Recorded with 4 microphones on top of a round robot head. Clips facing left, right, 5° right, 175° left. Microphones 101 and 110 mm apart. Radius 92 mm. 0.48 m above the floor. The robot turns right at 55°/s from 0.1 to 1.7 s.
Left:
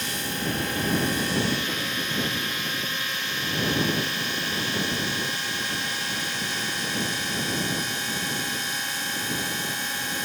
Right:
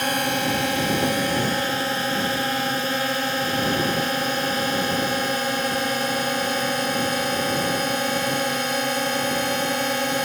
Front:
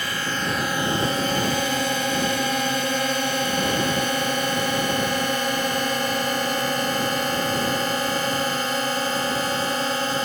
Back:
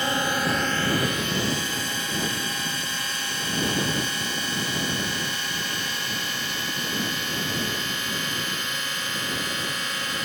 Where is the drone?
115° right; by 10.2 s 65° right.